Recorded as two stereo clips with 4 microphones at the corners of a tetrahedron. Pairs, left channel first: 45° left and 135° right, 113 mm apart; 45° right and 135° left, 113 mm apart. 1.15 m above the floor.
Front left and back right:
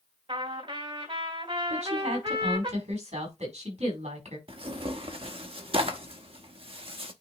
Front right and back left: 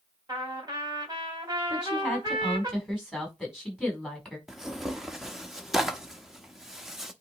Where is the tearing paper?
140° right, 0.9 m.